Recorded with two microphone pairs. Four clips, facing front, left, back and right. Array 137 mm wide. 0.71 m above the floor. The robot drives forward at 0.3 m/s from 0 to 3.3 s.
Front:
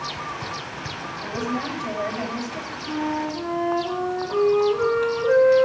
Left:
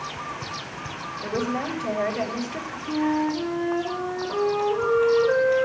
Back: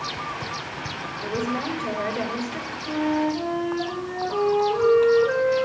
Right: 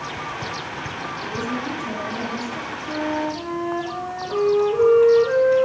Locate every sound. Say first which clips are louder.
1.2 s a woman speaking: left 2 dB, back 1 dB; 125° left, 3 m; by 2.8 s 135° left, 3.5 m
2.9 s a flute: left 2 dB, back 3 dB; 145° right, 6.5 m